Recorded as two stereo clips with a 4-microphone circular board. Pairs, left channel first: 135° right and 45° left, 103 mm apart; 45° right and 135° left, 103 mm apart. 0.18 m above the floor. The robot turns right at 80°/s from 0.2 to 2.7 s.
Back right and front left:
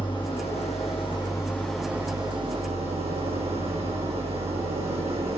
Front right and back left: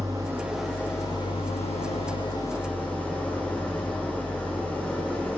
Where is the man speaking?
No man speaking in this recording.